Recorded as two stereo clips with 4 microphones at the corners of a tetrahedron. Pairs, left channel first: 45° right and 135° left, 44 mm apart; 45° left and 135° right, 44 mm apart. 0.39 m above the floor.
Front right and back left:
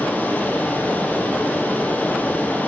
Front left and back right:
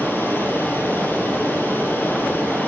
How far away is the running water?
About 3 m.